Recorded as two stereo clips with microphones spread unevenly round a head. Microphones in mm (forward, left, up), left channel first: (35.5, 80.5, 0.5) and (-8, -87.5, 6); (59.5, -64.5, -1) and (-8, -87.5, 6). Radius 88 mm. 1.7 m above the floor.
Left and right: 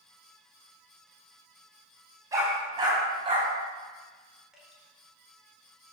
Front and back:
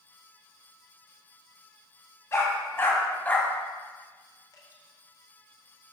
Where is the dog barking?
35° right, 5 m; by 3.5 s 50° right, 4 m.